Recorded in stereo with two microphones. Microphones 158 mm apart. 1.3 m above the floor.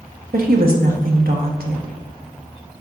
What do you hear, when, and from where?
0.3 s a woman speaking: 70° right (ahead or behind), 1.3 m